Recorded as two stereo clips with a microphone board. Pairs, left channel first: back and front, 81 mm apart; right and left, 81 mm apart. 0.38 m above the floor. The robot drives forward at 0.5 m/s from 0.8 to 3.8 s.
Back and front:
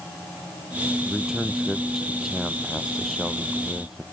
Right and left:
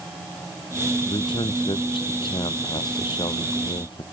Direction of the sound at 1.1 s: 80° right.